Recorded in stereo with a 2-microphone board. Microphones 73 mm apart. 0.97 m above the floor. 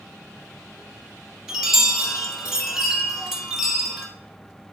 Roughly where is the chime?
Centre.